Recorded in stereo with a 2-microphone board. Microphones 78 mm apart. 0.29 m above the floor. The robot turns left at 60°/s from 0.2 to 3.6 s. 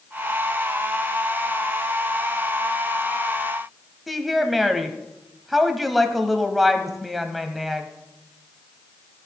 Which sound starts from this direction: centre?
A woman speaking, at 4.1 s.